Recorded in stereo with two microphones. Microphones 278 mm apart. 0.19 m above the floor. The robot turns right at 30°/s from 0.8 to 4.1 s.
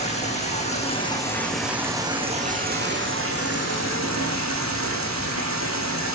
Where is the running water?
155° left, 9 m; by 6.2 s 105° right, 9 m.